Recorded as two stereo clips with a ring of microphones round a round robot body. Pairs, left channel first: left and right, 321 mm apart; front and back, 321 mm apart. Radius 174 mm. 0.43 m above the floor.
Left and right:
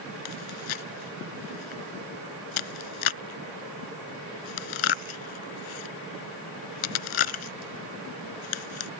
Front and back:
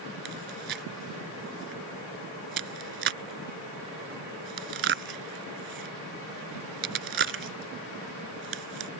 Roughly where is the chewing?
Behind left.